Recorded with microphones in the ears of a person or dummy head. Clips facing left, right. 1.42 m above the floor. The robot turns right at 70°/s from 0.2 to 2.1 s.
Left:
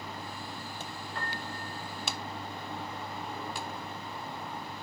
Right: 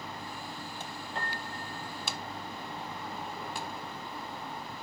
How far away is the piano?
About 1.9 m.